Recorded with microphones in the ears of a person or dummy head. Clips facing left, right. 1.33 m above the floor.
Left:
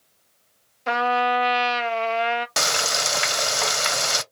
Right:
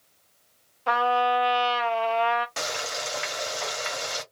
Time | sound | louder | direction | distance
0.9 | a trumpet | left 1 dB | 25° left (ahead or behind) | 0.7 m
2.6 | frying | left 5 dB | 65° left (ahead or behind) | 0.5 m